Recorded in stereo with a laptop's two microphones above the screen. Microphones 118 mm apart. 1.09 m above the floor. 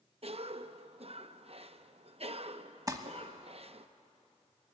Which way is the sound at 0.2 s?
55° right (ahead or behind).